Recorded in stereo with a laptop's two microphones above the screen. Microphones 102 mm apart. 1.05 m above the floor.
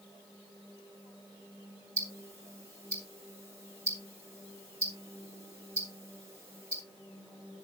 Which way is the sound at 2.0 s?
30° right (ahead or behind).